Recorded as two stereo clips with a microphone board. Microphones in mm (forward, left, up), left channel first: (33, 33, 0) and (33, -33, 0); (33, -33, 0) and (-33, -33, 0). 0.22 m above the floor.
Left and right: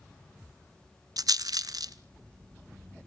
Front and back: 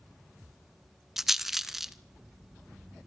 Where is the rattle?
95° right, 0.8 m.